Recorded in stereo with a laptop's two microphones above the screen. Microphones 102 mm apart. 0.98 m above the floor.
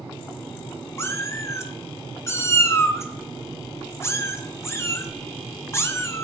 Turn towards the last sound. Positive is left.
turn(degrees=25)  # may be behind; listen again after turning